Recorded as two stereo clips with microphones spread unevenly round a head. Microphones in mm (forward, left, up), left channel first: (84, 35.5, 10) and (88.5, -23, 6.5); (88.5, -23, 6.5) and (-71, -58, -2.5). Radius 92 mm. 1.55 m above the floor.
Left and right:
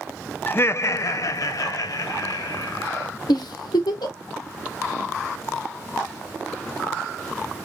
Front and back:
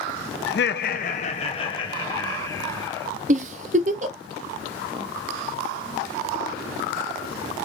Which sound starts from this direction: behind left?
A giggle, at 3.3 s.